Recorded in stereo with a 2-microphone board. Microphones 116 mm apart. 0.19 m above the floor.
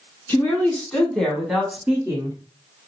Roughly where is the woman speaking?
Centre.